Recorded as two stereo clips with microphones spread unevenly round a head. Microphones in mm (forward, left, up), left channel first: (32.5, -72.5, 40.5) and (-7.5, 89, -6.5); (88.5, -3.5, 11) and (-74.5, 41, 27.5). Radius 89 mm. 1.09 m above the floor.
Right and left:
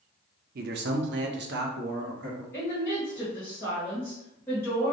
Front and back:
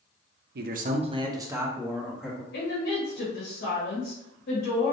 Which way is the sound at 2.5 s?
5° left.